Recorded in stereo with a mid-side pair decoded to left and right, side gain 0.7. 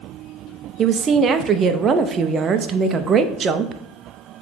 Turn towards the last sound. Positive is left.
turn(degrees=-35)